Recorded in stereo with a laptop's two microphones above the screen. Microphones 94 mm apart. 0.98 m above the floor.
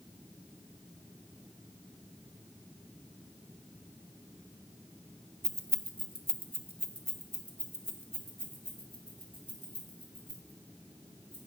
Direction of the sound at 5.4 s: 30° right (ahead or behind).